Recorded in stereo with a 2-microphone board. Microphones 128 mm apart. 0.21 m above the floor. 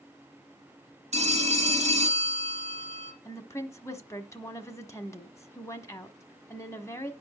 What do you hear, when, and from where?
1.1 s a phone ringing: 65° right (ahead or behind), 1.8 m
3.2 s a woman speaking: 20° left (ahead or behind), 1.2 m